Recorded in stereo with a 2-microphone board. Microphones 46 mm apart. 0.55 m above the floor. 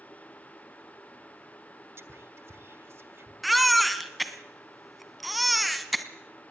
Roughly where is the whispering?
Right.